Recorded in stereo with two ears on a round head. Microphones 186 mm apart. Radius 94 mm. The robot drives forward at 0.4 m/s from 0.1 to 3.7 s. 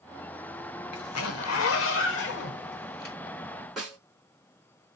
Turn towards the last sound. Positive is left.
turn(degrees=0)  # may be behind; listen again after turning